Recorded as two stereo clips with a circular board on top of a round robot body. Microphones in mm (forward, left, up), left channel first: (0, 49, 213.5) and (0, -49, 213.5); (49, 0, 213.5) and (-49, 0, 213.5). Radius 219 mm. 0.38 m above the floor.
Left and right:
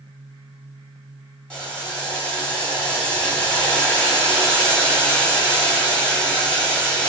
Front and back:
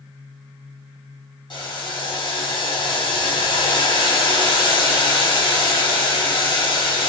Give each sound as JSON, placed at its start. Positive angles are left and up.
{"t": 1.5, "sound": "boiling", "azimuth_deg": 10, "distance_m": 1.6}